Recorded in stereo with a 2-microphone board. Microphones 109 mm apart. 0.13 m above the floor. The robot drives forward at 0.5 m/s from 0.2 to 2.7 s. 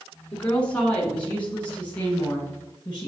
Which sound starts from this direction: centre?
A woman speaking, at 0.3 s.